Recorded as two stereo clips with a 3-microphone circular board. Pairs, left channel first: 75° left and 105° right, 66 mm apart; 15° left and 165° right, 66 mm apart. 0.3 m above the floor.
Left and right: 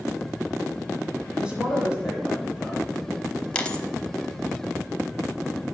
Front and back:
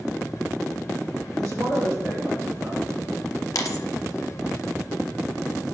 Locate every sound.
1.3 s a woman speaking: straight behind, 1.8 m
3.5 s a dropped coin: straight ahead, 0.6 m